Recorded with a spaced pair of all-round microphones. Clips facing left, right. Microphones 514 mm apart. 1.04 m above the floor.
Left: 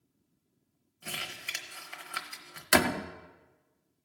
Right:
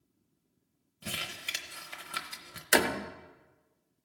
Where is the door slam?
25° left (ahead or behind), 0.6 m.